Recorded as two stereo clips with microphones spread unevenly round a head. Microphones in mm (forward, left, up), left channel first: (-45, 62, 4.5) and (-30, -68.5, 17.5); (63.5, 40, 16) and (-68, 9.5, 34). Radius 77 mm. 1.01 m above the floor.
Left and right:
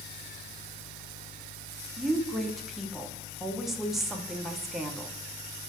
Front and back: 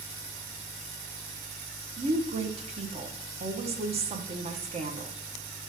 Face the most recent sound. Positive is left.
turn(degrees=180)